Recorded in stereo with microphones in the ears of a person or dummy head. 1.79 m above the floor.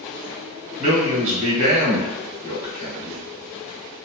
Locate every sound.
0.8 s a man speaking: 40° right (ahead or behind), 1.6 m